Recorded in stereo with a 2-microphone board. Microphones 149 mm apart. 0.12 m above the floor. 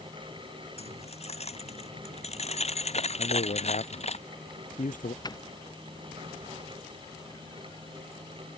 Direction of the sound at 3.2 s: 60° left (ahead or behind).